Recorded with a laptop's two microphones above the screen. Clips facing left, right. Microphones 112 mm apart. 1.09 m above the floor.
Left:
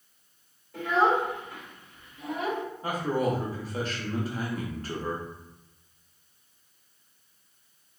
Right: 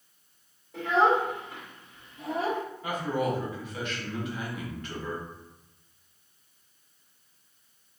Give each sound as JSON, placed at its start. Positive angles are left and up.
{"t": 0.7, "sound": "a child speaking", "side_deg": -20, "distance_m": 1.5}
{"t": 2.8, "sound": "a man speaking", "side_deg": 35, "distance_m": 0.8}